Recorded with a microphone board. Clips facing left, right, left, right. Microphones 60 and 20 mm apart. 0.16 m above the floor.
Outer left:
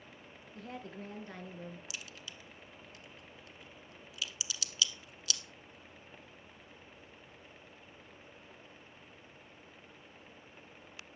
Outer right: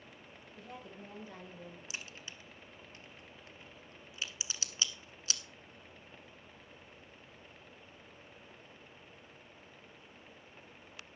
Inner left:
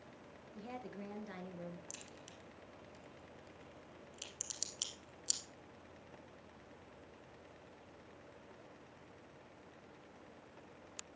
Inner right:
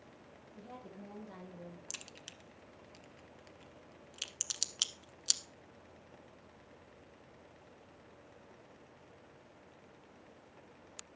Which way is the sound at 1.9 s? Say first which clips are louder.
Outer right 1 dB, inner right 5 dB; 30° right (ahead or behind).